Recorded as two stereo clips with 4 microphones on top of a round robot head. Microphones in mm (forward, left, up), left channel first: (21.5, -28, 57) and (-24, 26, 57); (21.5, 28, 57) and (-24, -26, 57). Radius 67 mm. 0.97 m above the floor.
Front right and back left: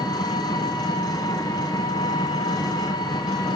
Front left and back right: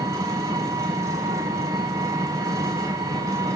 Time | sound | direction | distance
0.0 | an engine running | 80° right | 4.5 m